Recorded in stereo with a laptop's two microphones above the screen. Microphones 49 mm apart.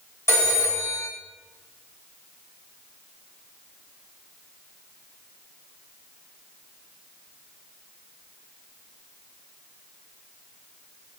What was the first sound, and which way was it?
A phone ringing, 80° left.